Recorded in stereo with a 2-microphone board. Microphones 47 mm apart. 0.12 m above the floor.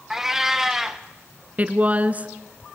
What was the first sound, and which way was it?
A cat meowing, 10° right (ahead or behind).